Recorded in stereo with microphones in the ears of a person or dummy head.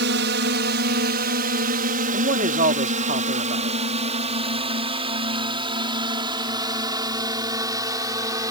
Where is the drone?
60° right (ahead or behind); by 8.5 s 20° right (ahead or behind).